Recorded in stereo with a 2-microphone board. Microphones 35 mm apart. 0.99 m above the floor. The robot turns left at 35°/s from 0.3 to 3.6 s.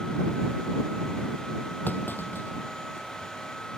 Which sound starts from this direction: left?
A clunk, at 1.9 s.